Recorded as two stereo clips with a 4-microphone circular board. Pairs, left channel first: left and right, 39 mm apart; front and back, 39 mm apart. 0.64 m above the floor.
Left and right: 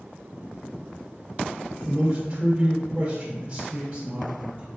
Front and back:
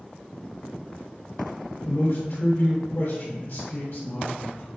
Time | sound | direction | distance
1.9 | a man speaking | 20° right | 2 m